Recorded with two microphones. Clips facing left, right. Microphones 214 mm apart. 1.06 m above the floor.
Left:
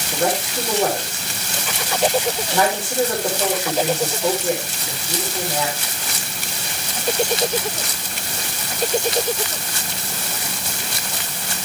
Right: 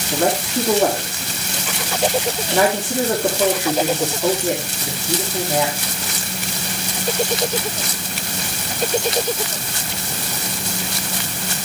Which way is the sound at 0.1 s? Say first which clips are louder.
Right 3 dB; 55° right (ahead or behind).